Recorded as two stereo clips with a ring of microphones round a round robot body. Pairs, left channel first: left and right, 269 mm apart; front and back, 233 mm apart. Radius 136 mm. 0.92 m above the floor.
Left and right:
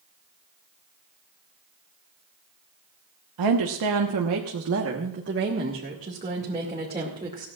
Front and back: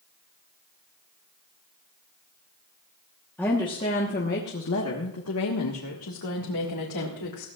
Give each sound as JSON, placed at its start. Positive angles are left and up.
{"t": 3.4, "sound": "a woman speaking", "azimuth_deg": -85, "distance_m": 1.2}